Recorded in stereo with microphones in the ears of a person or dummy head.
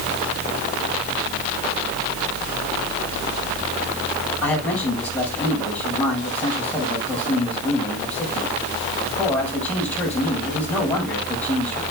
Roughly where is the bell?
No bell in this recording.